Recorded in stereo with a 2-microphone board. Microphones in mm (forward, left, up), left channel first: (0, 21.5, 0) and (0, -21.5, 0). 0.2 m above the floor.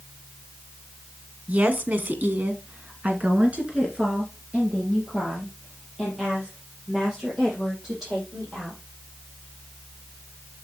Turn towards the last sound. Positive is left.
turn(degrees=-10)  # may be behind; listen again after turning